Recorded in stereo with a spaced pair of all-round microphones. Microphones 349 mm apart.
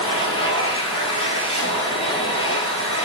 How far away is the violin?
I don't hear a violin.